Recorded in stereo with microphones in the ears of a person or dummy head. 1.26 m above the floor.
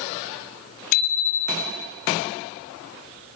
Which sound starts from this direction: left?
A bicycle bell, at 0.9 s.